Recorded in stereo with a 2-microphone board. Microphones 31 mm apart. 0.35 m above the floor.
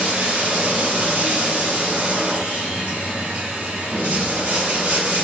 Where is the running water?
75° right (ahead or behind), 1.1 m.